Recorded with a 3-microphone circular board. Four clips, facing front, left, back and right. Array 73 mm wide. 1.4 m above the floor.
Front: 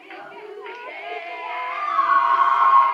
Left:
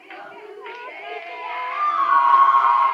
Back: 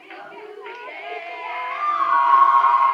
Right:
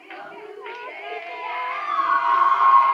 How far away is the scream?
About 2.5 m.